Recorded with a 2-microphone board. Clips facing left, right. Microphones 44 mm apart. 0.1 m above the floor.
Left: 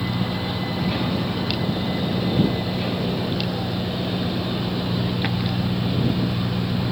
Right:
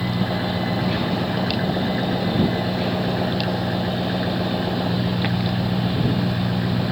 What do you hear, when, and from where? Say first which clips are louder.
0.0 s an engine running: right 2 dB; 45° right (ahead or behind)